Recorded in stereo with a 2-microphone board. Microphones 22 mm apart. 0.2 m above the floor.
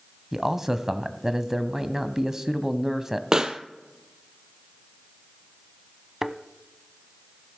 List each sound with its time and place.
0.3 s a man speaking: 20° right (ahead or behind), 1.0 m
3.3 s a pop: 30° right (ahead or behind), 0.9 m
6.2 s a thud: 15° right (ahead or behind), 0.7 m